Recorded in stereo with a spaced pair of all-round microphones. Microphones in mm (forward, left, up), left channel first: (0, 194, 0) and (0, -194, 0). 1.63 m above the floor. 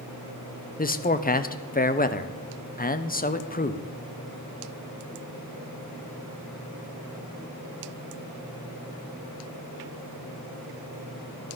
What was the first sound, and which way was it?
A man speaking, 25° left (ahead or behind).